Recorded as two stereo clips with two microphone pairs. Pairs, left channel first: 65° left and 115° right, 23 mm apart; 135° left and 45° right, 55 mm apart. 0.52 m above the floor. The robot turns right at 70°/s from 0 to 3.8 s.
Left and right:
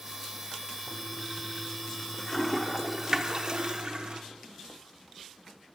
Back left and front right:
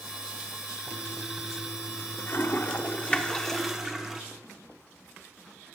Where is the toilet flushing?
35° left, 0.8 m; by 4.2 s 120° right, 0.8 m.